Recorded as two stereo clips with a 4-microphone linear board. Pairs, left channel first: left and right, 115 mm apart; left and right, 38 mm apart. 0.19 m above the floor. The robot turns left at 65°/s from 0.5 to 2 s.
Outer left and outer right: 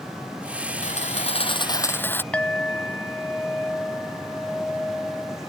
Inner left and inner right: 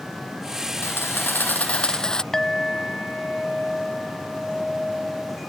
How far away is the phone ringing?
I don't hear a phone ringing.